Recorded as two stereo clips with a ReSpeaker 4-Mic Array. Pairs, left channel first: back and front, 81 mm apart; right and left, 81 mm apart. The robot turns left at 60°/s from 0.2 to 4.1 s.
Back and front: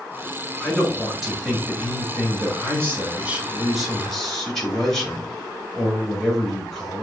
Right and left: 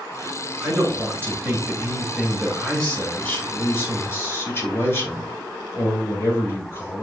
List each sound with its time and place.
0.6 s a man speaking: 110° left, 1.3 m; by 7.0 s 100° right, 1.3 m